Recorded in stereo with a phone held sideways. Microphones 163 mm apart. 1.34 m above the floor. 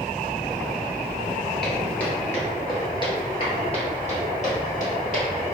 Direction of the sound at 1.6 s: 5° left (ahead or behind).